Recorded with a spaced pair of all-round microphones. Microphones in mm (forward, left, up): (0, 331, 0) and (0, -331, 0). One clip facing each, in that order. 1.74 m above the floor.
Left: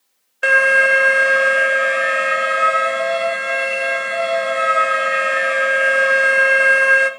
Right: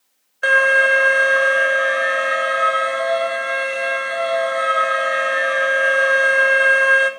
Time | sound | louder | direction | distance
0.4 | an alarm | left 1 dB | 55° left (ahead or behind) | 0.8 m